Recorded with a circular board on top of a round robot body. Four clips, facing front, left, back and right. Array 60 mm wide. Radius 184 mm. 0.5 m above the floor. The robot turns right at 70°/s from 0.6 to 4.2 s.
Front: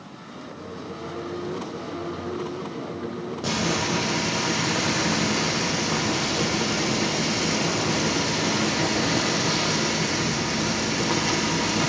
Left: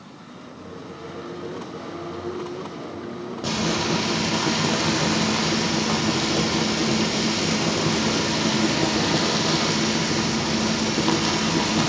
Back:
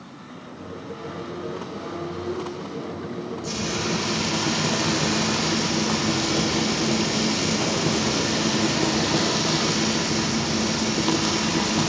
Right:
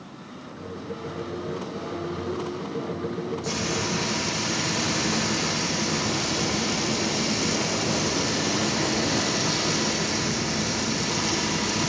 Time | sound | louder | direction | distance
3.4 | frying | left 8 dB, front 4 dB | 65° left | 5 m